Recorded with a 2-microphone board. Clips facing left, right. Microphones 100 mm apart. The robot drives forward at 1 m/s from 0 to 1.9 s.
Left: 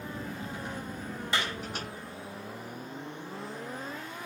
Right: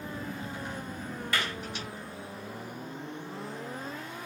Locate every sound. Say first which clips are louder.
1.3 s a clap: left 1 dB; 20° left (ahead or behind), 3 m; by 1.5 s 25° left (ahead or behind), 3 m